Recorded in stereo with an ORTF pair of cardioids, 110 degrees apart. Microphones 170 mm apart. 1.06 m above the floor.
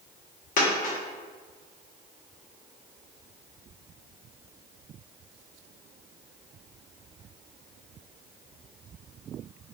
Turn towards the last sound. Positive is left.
turn(degrees=55)